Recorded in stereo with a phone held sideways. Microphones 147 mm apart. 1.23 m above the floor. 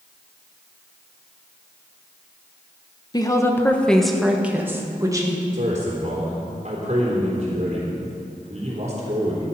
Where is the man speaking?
50° right (ahead or behind), 3.5 m.